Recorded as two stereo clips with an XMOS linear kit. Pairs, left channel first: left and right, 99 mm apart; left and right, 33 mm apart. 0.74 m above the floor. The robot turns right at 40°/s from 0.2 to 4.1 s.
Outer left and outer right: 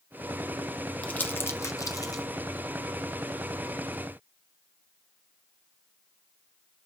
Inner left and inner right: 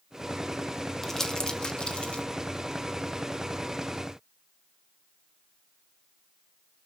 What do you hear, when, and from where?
1.0 s crumpling: 15° left (ahead or behind), 1.3 m; by 2.2 s 40° left (ahead or behind), 1.3 m